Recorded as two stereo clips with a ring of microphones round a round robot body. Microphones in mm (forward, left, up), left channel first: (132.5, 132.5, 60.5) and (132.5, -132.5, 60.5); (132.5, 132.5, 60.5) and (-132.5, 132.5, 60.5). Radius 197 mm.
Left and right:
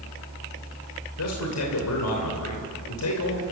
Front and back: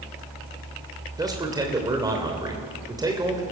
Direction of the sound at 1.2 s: 105° left.